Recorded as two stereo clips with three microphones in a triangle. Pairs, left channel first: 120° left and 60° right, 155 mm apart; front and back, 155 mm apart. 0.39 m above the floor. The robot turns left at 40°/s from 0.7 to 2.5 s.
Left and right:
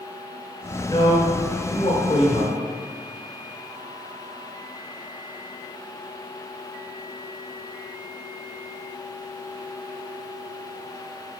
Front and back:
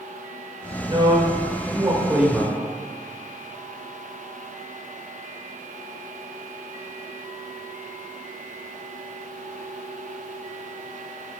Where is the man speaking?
155° left, 1.2 m; by 2.6 s 90° left, 1.2 m.